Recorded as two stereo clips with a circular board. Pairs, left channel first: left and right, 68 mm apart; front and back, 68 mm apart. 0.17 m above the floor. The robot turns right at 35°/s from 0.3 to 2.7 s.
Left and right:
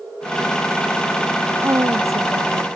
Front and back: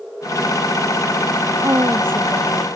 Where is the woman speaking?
140° right; by 2.7 s 105° right.